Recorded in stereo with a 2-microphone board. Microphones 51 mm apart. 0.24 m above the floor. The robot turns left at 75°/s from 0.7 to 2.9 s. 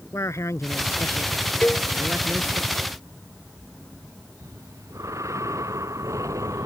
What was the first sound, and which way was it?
A man speaking, 90° left.